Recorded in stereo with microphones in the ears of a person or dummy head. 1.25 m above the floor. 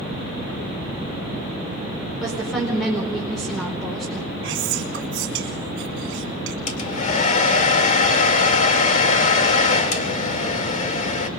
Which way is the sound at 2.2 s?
Centre (ahead or behind).